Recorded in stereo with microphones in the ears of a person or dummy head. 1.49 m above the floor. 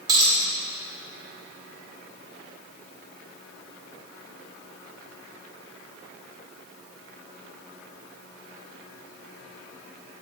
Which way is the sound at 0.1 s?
25° right (ahead or behind).